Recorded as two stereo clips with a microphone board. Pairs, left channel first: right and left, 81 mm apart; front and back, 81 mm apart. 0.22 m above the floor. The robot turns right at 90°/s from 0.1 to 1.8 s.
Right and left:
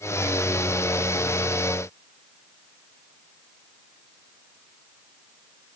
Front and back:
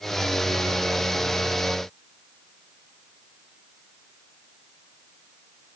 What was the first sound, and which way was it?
Only background noise.